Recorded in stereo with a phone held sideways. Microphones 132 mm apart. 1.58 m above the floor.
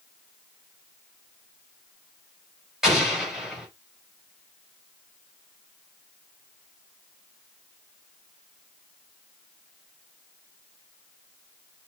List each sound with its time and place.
2.8 s an explosion: 5° right (ahead or behind), 4.5 m